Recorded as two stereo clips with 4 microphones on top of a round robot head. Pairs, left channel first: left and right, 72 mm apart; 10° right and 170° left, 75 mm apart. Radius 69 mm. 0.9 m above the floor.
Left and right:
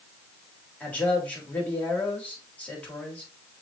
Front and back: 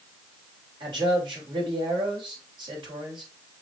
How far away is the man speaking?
About 4.5 m.